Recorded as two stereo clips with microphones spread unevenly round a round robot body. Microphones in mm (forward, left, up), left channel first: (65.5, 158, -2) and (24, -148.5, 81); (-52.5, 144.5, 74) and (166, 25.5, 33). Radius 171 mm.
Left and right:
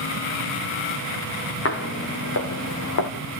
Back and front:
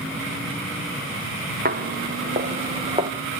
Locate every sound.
1.6 s footsteps: 25° left, 3 m; by 3.1 s 45° left, 2.5 m